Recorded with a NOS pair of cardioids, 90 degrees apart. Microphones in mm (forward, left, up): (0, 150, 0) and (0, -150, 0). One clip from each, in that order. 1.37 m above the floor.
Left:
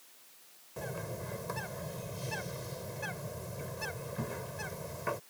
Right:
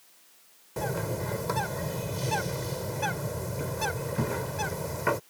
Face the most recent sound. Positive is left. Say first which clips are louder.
# right 9 dB
turn(degrees=-60)